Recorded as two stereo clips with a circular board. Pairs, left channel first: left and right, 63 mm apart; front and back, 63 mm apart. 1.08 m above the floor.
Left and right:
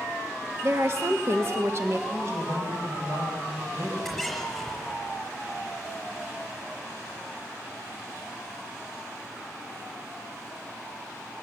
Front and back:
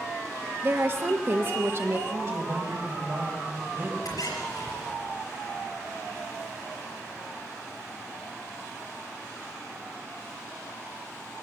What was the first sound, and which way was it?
A woman speaking, 130° right.